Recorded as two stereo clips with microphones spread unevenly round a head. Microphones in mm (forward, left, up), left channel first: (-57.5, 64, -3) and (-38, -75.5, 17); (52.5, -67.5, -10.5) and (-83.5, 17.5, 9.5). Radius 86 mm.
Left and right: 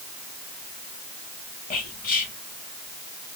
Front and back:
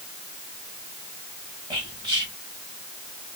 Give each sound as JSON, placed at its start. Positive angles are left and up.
{"t": 1.7, "sound": "whispering", "azimuth_deg": 80, "distance_m": 1.7}